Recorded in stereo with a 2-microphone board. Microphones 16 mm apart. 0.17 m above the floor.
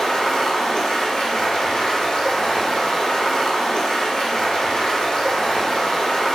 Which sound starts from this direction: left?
Running water, at 0.0 s.